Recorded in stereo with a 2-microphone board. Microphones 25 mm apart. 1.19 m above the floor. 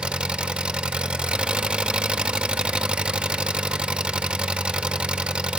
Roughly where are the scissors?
No scissors in this recording.